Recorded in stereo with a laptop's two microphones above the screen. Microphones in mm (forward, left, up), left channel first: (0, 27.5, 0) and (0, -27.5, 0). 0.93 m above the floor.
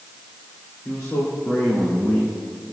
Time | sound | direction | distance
0.8 | a man speaking | 70° left (ahead or behind) | 2.5 m